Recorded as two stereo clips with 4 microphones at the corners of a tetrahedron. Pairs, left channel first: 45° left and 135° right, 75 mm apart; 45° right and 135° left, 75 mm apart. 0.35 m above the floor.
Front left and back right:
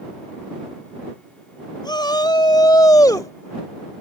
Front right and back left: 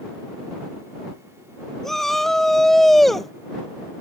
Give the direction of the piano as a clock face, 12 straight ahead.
No piano in this recording.